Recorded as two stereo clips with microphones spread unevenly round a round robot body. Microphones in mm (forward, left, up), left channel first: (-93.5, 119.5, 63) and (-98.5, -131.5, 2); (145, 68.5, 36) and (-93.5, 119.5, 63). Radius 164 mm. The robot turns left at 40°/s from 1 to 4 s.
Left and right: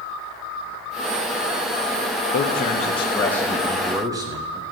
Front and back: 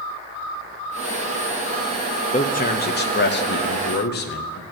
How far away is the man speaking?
About 1.0 m.